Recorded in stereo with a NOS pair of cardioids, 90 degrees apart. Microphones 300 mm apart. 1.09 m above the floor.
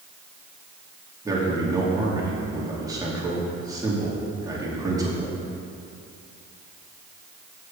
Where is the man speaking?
10° right, 2.5 m.